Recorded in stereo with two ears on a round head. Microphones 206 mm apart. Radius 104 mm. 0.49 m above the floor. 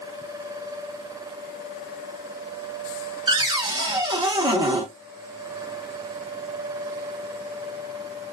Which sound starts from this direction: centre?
A cupboard door, at 3.3 s.